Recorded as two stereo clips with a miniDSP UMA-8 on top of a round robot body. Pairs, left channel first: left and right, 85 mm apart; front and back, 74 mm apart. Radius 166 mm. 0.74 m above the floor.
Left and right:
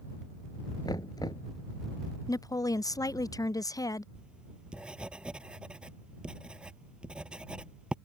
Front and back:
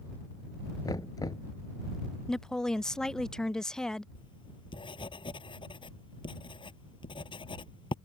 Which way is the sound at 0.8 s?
45° left.